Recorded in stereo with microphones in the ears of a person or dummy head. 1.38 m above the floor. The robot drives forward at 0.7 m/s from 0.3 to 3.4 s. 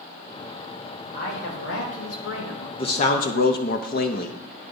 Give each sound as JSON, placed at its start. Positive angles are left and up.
{"t": 1.1, "sound": "a man speaking", "side_deg": 60, "distance_m": 2.0}
{"t": 2.8, "sound": "a man speaking", "side_deg": 30, "distance_m": 0.6}